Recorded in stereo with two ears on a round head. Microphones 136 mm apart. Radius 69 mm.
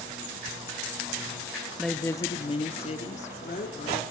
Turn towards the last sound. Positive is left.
turn(degrees=55)  # may be behind; listen again after turning